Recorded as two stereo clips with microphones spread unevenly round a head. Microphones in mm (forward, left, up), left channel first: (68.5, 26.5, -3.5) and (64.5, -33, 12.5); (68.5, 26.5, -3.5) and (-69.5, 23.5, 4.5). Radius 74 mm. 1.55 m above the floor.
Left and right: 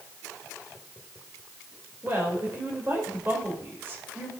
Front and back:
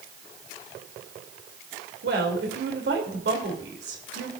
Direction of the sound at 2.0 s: 170° right.